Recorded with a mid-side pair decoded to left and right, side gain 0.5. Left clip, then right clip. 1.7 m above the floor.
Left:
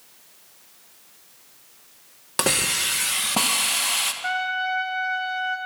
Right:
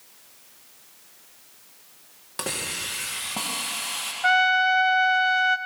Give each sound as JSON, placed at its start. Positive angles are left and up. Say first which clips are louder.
{"t": 2.4, "sound": "a hiss", "louder": "left 8 dB", "azimuth_deg": 55, "distance_m": 2.5}
{"t": 4.2, "sound": "a trumpet", "louder": "right 6 dB", "azimuth_deg": -45, "distance_m": 1.7}